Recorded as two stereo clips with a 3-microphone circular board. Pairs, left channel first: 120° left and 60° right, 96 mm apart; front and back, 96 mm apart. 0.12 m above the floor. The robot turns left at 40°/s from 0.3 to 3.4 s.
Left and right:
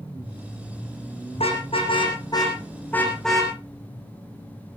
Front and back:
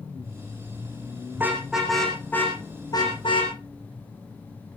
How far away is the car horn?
About 4 m.